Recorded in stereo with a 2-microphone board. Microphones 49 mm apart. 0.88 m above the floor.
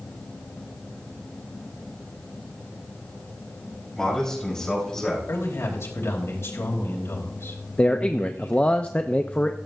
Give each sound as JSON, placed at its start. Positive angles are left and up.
{"t": 4.0, "sound": "a man speaking", "side_deg": 15, "distance_m": 5.5}
{"t": 5.3, "sound": "a man speaking", "side_deg": 65, "distance_m": 4.0}
{"t": 7.8, "sound": "a man speaking", "side_deg": 25, "distance_m": 0.6}